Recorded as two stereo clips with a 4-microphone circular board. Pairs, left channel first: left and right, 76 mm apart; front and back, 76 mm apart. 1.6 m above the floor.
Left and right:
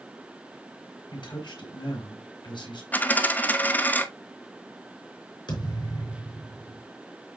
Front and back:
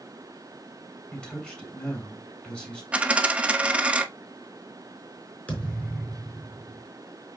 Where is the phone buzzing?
No phone buzzing in this recording.